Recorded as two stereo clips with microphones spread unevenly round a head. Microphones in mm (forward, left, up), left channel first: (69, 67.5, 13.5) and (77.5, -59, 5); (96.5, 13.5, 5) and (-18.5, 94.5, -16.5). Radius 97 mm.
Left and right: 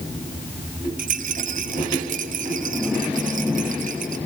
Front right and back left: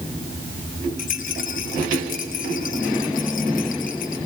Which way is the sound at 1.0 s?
80° right.